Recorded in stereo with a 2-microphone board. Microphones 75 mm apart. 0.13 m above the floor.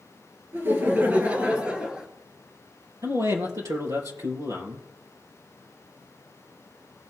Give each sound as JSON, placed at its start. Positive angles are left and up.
{"t": 0.5, "sound": "laughter", "side_deg": -30, "distance_m": 3.0}
{"t": 3.0, "sound": "a man speaking", "side_deg": -45, "distance_m": 3.5}